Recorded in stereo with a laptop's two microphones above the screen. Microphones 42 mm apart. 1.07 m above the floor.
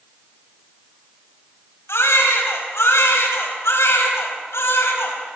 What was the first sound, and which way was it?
A baby crying, 85° left.